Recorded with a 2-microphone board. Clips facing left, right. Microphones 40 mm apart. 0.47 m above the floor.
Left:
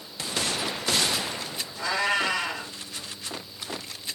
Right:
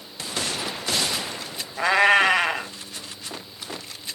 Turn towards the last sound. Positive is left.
turn(degrees=-55)  # may be behind; listen again after turning